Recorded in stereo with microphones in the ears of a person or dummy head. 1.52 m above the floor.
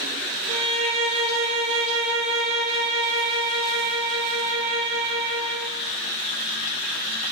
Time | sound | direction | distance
0.5 | a violin | 30° right (ahead or behind) | 1.5 m